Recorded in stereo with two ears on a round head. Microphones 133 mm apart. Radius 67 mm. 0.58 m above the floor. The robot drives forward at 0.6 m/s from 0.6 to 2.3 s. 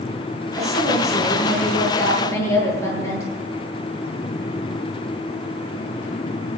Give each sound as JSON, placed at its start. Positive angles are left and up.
{"t": 0.5, "sound": "a woman speaking", "side_deg": 20, "distance_m": 10.0}